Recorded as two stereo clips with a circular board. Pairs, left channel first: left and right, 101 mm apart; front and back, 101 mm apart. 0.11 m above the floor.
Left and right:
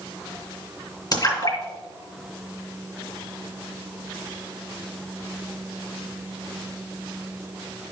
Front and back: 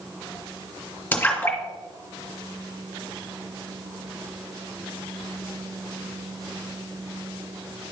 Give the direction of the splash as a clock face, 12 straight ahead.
10 o'clock.